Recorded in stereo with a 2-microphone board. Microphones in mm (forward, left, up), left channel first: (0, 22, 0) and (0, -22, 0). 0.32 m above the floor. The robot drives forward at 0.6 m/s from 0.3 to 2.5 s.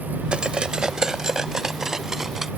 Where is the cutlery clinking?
25° right (ahead or behind); by 2.5 s 10° right (ahead or behind).